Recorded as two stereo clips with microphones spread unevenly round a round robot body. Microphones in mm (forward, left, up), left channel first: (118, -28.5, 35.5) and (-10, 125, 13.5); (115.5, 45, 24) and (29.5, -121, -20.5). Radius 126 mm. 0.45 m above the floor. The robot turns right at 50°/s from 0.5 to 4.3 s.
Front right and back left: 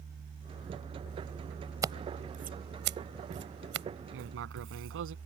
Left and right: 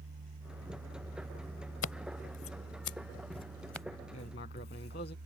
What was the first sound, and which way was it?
Scissors, 60° left.